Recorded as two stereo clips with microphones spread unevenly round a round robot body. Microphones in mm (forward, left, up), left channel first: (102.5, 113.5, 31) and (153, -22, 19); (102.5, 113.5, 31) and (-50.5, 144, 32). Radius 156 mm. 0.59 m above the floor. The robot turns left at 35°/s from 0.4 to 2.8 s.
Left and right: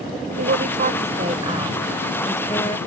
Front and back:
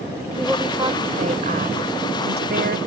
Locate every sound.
0.4 s a woman speaking: 100° right; by 2.8 s 175° left